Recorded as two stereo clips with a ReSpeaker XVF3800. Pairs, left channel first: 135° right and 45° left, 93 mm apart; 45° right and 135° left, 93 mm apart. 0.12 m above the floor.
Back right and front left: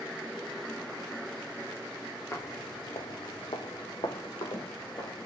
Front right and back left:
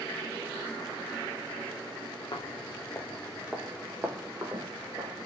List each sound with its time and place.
2.3 s footsteps: 75° right, 0.7 m; by 5.3 s straight behind, 1.3 m